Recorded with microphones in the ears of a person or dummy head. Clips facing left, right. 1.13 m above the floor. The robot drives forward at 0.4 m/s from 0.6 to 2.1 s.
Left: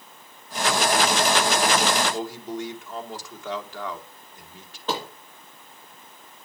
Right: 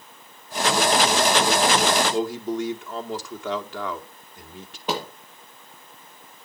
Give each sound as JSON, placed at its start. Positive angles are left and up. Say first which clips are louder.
{"t": 2.1, "sound": "a man speaking", "louder": "right 6 dB", "side_deg": -55, "distance_m": 2.5}
{"t": 4.9, "sound": "a thud", "louder": "right 1 dB", "side_deg": -10, "distance_m": 6.5}